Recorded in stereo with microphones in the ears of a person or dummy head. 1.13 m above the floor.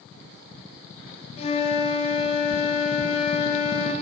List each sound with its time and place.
1.4 s a flute: 35° left (ahead or behind), 1.0 m